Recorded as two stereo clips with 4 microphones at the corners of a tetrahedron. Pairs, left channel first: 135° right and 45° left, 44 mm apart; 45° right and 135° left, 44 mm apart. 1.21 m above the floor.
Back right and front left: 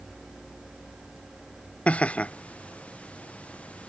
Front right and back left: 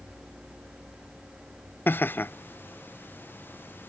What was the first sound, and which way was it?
Laughter, 75° right.